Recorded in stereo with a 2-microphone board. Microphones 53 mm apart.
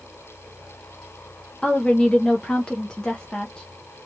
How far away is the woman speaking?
About 0.7 m.